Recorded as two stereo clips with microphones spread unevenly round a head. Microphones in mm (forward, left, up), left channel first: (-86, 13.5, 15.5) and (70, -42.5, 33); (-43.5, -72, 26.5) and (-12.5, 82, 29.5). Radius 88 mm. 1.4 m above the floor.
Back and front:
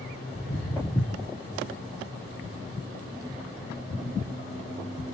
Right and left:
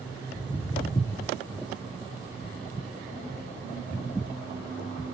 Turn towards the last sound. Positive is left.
turn(degrees=-55)